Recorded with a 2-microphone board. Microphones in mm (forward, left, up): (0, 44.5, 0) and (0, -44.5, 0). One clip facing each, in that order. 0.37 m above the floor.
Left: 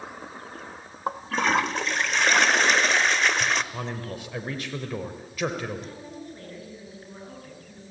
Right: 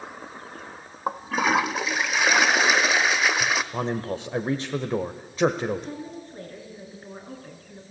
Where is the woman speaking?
30° right (ahead or behind), 6 m.